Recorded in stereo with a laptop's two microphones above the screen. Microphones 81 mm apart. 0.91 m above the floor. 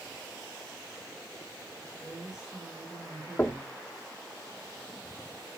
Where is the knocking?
15° left (ahead or behind), 1.0 m.